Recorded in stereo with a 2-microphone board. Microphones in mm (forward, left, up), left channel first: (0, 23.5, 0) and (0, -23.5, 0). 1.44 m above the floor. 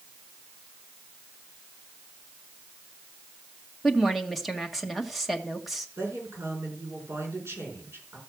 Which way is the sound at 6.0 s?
65° right (ahead or behind).